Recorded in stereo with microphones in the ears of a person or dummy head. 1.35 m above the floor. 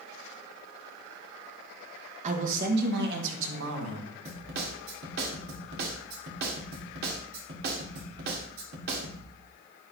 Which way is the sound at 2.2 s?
35° right (ahead or behind).